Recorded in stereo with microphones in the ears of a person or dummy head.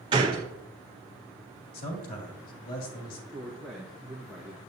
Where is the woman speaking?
5° left (ahead or behind), 1.3 m.